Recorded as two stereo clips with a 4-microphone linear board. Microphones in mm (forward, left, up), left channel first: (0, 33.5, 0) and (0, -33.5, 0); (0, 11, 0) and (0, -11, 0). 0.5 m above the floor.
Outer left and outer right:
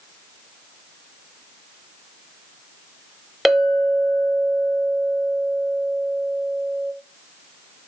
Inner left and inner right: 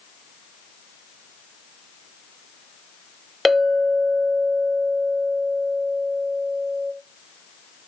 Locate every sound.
3.5 s a clink: 5° right (ahead or behind), 1.1 m